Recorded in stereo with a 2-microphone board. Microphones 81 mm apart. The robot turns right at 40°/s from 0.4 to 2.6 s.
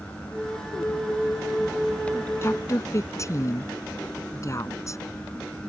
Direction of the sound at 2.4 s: 30° left (ahead or behind).